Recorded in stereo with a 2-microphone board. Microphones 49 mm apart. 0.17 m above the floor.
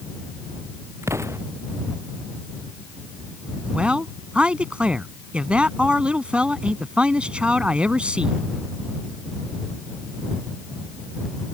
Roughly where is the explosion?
Right.